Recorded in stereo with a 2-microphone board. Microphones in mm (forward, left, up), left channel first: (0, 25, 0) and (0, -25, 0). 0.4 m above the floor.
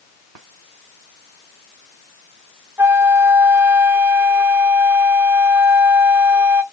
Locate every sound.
2.8 s a flute: 50° right (ahead or behind), 0.6 m